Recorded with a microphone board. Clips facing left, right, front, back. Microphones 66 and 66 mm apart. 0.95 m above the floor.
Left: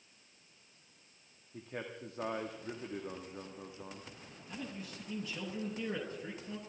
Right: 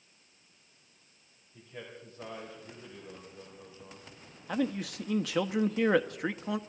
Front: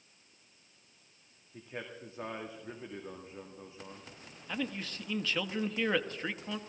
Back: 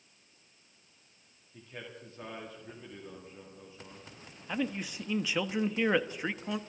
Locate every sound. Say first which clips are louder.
1.5 s a man speaking: left 3 dB, front 3 dB; 65° left, 2.0 m
4.5 s a man speaking: right 13 dB, back 3 dB; 100° right, 0.9 m